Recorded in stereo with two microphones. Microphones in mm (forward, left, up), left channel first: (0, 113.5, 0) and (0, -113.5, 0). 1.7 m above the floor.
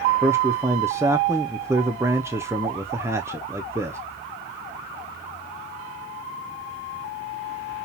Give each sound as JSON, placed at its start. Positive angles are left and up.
{"t": 0.2, "sound": "a man speaking", "side_deg": -10, "distance_m": 0.6}